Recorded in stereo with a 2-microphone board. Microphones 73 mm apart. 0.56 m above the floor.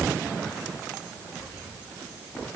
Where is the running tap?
I don't hear a running tap.